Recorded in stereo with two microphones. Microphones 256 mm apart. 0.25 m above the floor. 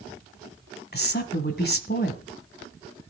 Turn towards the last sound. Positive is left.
turn(degrees=45)  # may be behind; listen again after turning